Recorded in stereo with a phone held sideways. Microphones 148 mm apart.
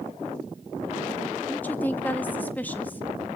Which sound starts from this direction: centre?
A woman speaking, at 1.5 s.